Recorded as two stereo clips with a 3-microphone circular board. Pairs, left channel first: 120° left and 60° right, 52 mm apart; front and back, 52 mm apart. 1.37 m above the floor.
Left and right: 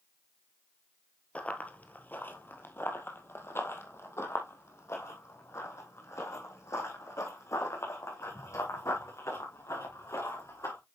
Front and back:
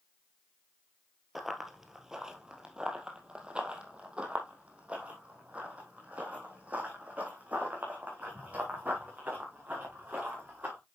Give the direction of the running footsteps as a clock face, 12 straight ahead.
9 o'clock.